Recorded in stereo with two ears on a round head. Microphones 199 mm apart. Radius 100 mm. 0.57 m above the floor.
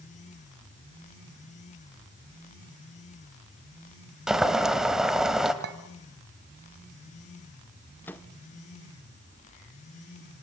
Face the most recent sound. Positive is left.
turn(degrees=10)  # may be behind; listen again after turning